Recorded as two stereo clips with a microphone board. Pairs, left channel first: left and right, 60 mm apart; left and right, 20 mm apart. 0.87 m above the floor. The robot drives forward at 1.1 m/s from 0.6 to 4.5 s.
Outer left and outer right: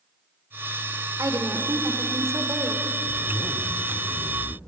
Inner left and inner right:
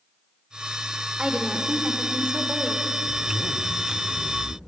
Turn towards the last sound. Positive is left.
turn(degrees=30)  # may be behind; listen again after turning